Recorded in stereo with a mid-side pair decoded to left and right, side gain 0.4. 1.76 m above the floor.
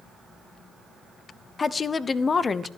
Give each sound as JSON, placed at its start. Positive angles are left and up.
{"t": 1.6, "sound": "a woman speaking", "azimuth_deg": 40, "distance_m": 0.9}